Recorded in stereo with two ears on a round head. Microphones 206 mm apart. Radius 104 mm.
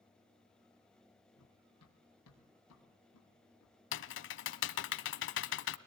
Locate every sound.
1.4 s running footsteps: 85° left, 5 m; by 3.8 s 80° left, 6 m
3.9 s typing on a keyboard: 60° left (ahead or behind), 0.7 m